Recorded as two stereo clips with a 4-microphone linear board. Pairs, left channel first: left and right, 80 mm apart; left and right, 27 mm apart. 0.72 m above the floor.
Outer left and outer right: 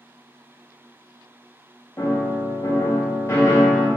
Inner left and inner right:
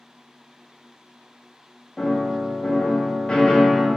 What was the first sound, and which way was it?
A piano, 40° left (ahead or behind).